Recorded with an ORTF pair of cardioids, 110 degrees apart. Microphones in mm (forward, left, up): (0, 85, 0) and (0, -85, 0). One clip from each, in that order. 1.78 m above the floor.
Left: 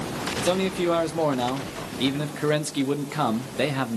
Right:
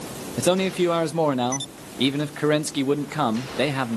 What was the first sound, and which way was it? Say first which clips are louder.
A man speaking: right 4 dB; 25° right.